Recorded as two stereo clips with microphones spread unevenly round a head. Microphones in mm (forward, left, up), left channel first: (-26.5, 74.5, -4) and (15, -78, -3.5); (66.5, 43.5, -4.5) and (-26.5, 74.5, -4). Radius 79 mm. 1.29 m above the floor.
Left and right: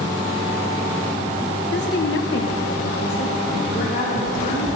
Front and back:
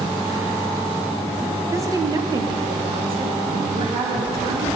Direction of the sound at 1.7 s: 100° left.